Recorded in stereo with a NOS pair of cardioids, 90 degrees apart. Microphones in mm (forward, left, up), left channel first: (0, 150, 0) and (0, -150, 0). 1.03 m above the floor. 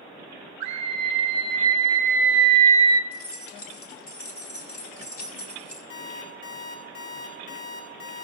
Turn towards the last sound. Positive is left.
turn(degrees=60)